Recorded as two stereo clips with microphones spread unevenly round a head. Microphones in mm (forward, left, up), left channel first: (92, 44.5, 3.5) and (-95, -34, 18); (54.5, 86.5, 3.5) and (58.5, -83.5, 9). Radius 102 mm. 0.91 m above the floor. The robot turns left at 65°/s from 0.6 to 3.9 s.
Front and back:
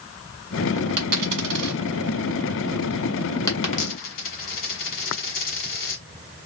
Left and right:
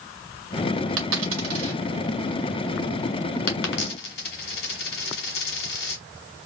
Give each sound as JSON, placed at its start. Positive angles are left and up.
{"t": 1.0, "sound": "a dropped coin", "azimuth_deg": -100, "distance_m": 1.7}